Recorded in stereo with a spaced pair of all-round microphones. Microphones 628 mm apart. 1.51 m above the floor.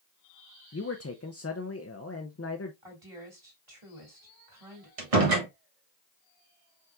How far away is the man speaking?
About 0.6 m.